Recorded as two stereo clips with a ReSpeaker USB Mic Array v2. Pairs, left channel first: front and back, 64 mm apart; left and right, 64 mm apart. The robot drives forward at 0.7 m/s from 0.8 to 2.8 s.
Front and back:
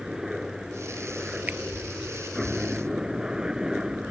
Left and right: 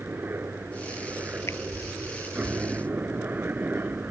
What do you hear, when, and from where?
0.0 s a helicopter: 100° right; by 4.1 s 110° right
1.5 s a finger snap: 120° left